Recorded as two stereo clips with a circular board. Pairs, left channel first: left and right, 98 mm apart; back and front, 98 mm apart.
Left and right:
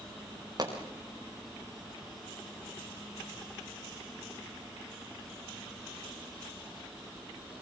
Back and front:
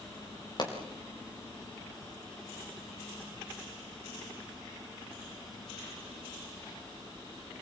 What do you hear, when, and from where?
0.6 s a pop: 135° right, 6 m